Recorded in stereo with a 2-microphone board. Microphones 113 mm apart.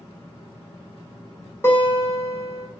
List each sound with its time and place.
1.6 s a guitar: 20° left (ahead or behind), 1.3 m